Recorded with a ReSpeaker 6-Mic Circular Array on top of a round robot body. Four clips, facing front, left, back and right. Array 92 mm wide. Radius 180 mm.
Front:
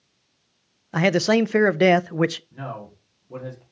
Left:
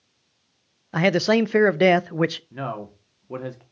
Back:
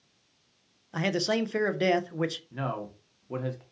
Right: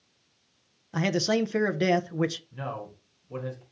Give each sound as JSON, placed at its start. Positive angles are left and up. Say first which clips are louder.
{"t": 0.9, "sound": "a man speaking", "louder": "left 6 dB, front 9 dB", "azimuth_deg": 45, "distance_m": 0.6}
{"t": 2.5, "sound": "a man speaking", "louder": "left 5 dB, back 1 dB", "azimuth_deg": 110, "distance_m": 2.5}